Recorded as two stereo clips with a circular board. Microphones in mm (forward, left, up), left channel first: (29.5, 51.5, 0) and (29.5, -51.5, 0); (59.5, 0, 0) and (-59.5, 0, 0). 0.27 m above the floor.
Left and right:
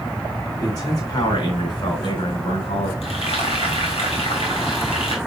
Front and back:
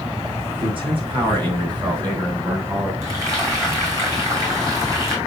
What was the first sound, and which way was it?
A man speaking, 140° left.